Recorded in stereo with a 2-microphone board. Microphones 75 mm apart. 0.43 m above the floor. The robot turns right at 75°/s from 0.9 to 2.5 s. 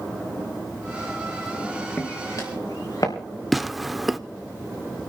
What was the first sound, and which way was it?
Footsteps, 30° left (ahead or behind).